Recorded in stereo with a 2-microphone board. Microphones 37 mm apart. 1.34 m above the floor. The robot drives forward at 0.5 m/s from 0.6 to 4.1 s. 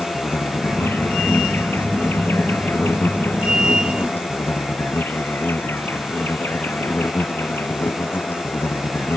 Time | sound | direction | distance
0.0 | an insect | 75° left (ahead or behind) | ?